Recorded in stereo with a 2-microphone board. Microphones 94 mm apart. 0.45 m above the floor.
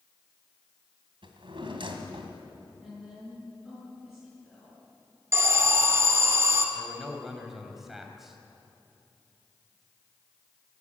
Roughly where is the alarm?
Right.